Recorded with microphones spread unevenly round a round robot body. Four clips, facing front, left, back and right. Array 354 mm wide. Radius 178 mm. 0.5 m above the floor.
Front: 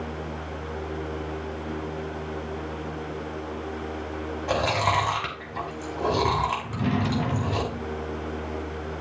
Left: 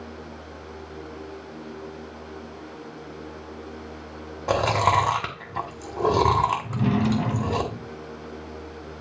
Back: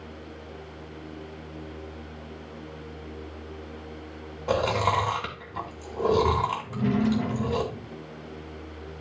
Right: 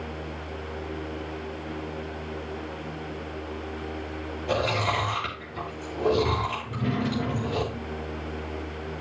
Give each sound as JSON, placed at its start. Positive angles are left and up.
{"t": 4.5, "sound": "chewing", "azimuth_deg": 75, "distance_m": 2.5}
{"t": 6.6, "sound": "a drawer", "azimuth_deg": 50, "distance_m": 1.6}